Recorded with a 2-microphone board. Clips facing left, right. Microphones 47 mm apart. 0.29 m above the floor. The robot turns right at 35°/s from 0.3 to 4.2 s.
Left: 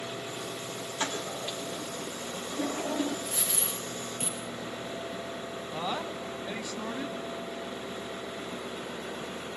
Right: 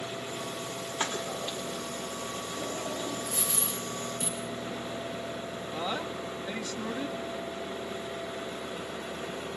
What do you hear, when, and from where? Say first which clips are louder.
1.0 s a toilet flushing: right 1 dB; 20° right (ahead or behind), 4.5 m; by 3.1 s 55° left (ahead or behind), 4.5 m
3.2 s a dropped coin: right 1 dB; 75° left (ahead or behind), 5.5 m; by 4.4 s 70° left (ahead or behind), 5.5 m
5.7 s a woman speaking: even; 15° left (ahead or behind), 1.8 m